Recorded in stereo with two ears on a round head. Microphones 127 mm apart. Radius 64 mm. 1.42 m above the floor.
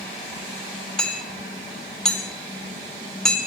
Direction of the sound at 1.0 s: 5° left (ahead or behind).